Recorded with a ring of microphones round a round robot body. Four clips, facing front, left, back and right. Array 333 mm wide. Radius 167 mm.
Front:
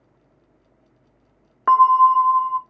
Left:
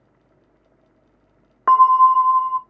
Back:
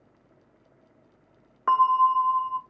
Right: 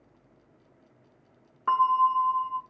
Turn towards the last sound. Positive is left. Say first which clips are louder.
# left 10 dB, front 7 dB
turn(degrees=60)